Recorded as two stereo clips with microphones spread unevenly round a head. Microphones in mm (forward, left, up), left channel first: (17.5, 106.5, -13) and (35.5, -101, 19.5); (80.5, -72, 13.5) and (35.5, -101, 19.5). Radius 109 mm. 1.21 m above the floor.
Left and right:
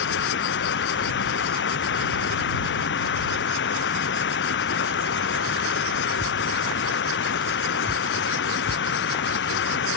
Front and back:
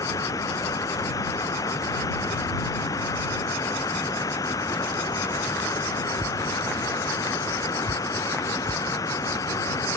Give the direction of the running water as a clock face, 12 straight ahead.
10 o'clock.